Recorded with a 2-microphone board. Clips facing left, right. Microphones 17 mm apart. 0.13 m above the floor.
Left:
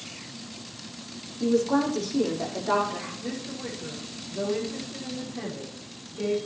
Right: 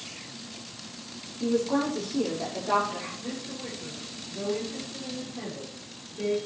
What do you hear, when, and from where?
1.4 s a woman speaking: 25° left (ahead or behind), 6 m
3.2 s a woman speaking: 5° left (ahead or behind), 6 m